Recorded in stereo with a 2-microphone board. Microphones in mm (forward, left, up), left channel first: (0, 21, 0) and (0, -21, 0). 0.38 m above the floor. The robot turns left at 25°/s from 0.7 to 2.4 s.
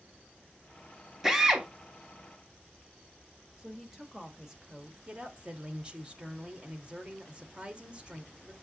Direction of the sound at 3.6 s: 15° right (ahead or behind).